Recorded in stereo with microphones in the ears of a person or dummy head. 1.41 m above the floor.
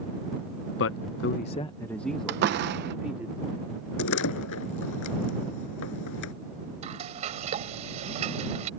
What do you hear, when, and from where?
0.8 s a man speaking: 65° left (ahead or behind); by 3.3 s 5° right (ahead or behind)
2.3 s a door slam: 55° right (ahead or behind)
4.0 s a door slam: 70° left (ahead or behind)
6.8 s frying: 35° right (ahead or behind)